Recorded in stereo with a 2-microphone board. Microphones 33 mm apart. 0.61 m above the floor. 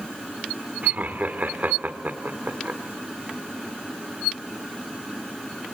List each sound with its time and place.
0.8 s laughter: 55° right (ahead or behind), 2.0 m